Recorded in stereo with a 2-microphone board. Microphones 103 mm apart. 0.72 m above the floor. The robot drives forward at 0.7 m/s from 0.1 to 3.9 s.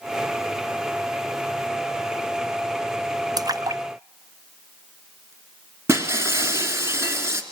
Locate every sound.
3.4 s a splash: 40° right (ahead or behind), 0.6 m; by 5.3 s 35° right (ahead or behind), 0.7 m
5.9 s breaking glass: 25° right (ahead or behind), 2.5 m